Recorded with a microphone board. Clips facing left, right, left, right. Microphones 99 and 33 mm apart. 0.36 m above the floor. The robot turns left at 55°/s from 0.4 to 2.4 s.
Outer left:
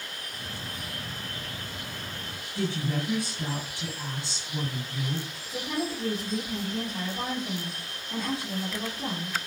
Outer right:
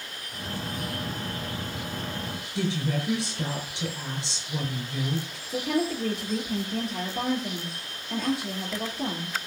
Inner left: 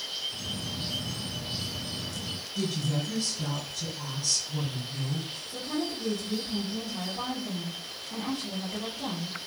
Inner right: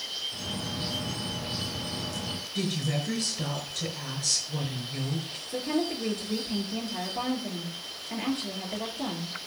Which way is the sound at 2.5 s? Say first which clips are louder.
Outer right 1 dB, even; 80° right.